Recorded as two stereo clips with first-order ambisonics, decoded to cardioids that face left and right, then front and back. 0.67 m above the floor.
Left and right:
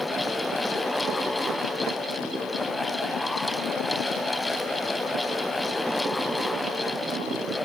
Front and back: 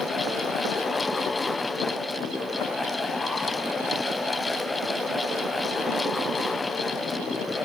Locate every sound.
Only background noise.